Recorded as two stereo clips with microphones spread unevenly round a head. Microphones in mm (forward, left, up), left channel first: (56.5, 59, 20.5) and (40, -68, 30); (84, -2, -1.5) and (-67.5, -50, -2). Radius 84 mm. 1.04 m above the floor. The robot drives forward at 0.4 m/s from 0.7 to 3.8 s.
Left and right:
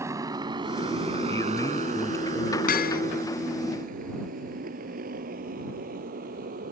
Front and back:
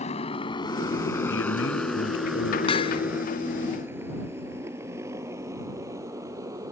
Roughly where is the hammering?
Left.